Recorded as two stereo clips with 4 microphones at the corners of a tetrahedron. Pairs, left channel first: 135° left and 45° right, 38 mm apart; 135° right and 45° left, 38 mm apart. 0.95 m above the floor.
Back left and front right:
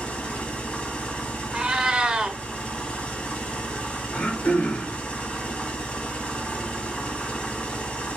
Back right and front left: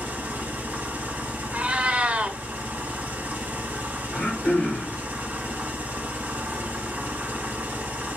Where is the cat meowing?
20° left, 1.0 m.